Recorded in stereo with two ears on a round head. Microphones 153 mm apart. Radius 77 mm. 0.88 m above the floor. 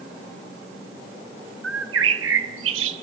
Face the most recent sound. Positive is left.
turn(degrees=-80)